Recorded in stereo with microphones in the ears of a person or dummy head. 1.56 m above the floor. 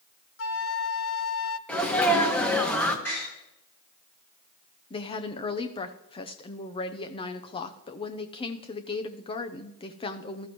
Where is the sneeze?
5° left (ahead or behind), 1.6 m.